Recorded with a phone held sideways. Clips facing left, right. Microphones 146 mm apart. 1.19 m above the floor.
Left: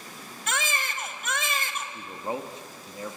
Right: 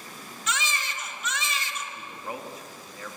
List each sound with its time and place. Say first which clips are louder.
0.5 s a baby crying: left 1 dB; 55° left (ahead or behind), 1.6 m
1.9 s a man speaking: left 4 dB; 25° left (ahead or behind), 1.6 m